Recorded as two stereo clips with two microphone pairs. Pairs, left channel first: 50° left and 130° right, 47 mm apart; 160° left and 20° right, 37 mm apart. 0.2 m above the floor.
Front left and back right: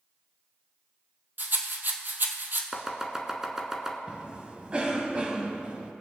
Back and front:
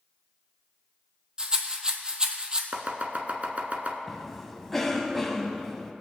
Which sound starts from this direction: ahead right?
Chopping, at 2.7 s.